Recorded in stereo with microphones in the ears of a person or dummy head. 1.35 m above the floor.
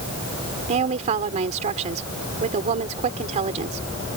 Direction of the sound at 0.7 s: 35° right (ahead or behind).